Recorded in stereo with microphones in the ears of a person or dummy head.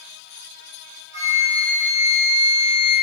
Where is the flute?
15° right (ahead or behind), 1.7 m.